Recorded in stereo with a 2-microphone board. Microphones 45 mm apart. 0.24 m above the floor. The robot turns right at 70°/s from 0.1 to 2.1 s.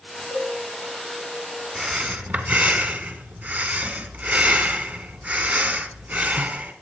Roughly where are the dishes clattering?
Right.